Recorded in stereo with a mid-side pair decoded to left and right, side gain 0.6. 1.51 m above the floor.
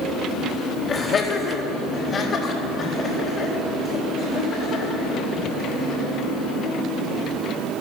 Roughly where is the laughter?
Ahead left.